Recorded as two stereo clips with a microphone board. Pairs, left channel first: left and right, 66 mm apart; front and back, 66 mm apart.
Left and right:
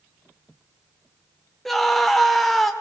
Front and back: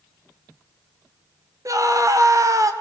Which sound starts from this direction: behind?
A scream, at 1.6 s.